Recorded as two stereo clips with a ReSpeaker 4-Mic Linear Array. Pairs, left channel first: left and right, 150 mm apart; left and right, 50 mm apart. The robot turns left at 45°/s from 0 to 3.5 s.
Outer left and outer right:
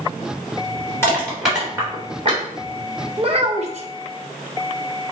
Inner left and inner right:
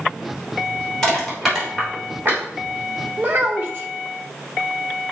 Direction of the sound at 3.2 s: 35° right (ahead or behind).